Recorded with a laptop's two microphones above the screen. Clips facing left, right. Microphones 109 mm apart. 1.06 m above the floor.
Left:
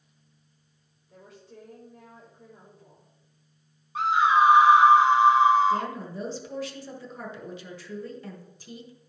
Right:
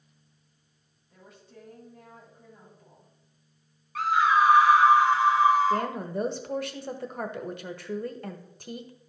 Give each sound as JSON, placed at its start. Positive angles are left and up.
{"t": 1.1, "sound": "a woman speaking", "side_deg": 80, "distance_m": 4.5}
{"t": 4.0, "sound": "a scream", "side_deg": 20, "distance_m": 1.3}
{"t": 5.7, "sound": "a woman speaking", "side_deg": -55, "distance_m": 1.3}